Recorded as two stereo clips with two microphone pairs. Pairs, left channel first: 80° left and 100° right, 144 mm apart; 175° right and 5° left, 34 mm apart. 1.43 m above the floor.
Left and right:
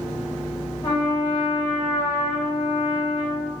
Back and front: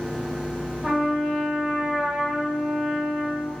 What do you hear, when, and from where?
0.8 s a trumpet: 75° left, 0.8 m